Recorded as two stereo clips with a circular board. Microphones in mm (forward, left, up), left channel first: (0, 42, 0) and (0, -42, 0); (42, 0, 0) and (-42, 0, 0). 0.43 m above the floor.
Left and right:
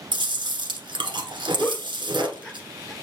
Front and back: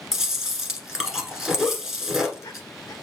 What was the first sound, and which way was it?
Chewing, 95° right.